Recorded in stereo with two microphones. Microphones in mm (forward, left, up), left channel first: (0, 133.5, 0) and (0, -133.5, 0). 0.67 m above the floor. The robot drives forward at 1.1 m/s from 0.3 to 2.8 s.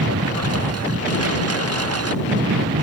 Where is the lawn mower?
60° right (ahead or behind).